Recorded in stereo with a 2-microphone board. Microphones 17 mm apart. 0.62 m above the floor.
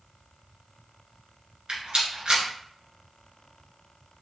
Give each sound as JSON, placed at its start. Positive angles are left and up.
{"t": 1.7, "sound": "a rattle", "side_deg": -75, "distance_m": 1.7}